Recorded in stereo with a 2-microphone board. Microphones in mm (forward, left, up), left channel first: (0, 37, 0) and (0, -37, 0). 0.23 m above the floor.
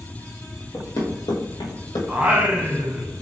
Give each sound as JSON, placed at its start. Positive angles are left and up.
{"t": 0.7, "sound": "running footsteps", "side_deg": 50, "distance_m": 1.0}
{"t": 2.1, "sound": "singing", "side_deg": -15, "distance_m": 0.6}